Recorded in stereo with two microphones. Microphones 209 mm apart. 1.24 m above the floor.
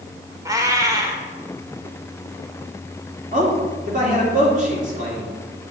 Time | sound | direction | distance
0.5 | a cat meowing | 15° right (ahead or behind) | 1.3 m
3.3 | a man speaking | 35° right (ahead or behind) | 3 m